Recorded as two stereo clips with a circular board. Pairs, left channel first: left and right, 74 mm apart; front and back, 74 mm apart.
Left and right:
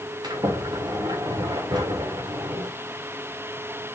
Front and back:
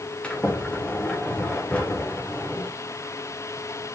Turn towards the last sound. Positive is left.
turn(degrees=-75)